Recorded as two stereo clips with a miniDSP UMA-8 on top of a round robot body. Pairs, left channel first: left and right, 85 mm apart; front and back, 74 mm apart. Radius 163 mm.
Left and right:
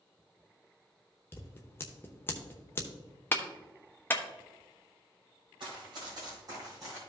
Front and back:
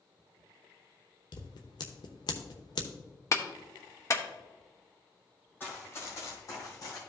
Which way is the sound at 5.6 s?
60° right.